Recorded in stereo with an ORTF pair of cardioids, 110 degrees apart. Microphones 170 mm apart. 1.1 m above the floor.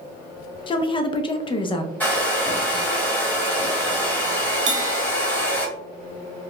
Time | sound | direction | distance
0.7 | a woman speaking | 30° left | 0.6 m
2.0 | a hair dryer | 10° left | 1.3 m
4.7 | a bell | 50° right | 0.7 m